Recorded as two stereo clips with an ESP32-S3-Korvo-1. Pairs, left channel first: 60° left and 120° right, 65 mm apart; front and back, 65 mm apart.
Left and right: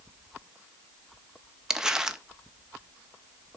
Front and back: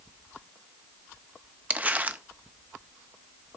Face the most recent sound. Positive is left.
turn(degrees=175)